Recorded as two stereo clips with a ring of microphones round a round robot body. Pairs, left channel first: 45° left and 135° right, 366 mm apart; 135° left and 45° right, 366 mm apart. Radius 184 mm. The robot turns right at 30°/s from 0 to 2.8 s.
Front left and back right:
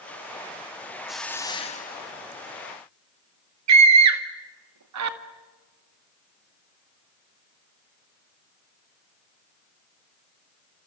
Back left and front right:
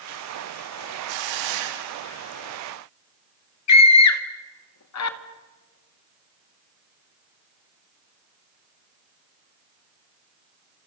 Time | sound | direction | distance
1.1 | a hiss | 45° right | 1.9 m
3.7 | a scream | straight behind | 2 m